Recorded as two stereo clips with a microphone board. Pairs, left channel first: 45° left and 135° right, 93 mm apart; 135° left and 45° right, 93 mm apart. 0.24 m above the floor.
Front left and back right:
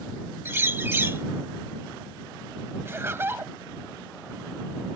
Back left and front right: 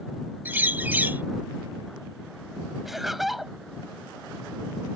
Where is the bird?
95° right.